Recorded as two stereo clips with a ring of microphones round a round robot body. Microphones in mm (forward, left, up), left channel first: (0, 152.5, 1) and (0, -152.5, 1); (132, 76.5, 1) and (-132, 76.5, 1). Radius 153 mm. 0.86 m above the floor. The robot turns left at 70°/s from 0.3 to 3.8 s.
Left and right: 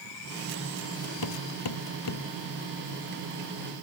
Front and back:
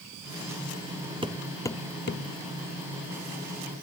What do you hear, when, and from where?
1.2 s hammering: 110° left; by 2.3 s 35° left